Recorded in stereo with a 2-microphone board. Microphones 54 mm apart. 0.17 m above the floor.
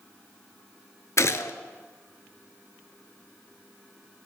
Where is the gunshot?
60° left (ahead or behind), 0.6 m.